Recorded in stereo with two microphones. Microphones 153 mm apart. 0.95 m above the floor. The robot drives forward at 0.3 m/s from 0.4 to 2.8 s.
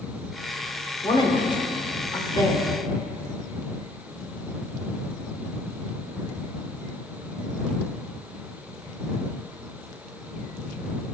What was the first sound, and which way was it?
A woman speaking, 30° left (ahead or behind).